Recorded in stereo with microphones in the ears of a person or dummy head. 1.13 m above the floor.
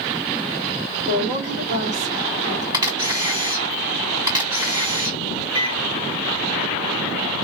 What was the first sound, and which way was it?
A woman speaking, 35° right (ahead or behind).